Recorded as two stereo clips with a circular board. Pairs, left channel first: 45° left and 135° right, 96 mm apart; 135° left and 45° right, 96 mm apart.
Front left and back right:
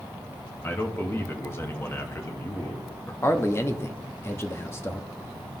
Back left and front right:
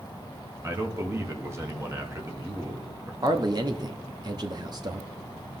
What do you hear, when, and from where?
0.6 s a man speaking: 5° right, 1.2 m
3.2 s a man speaking: 15° right, 0.8 m